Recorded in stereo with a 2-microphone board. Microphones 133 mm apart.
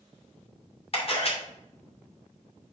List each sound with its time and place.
0.9 s a camera shutter: 50° left (ahead or behind), 2.5 m